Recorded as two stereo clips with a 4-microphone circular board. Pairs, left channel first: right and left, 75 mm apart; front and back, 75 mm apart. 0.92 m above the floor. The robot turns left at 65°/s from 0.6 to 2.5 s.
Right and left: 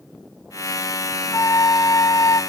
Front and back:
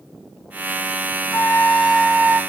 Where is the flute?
50° right, 1.2 m; by 2.4 s 120° right, 1.2 m.